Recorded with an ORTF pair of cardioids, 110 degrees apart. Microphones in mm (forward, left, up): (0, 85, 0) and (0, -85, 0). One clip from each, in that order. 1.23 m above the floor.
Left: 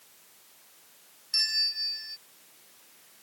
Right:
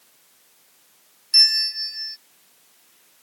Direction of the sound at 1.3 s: 25° right.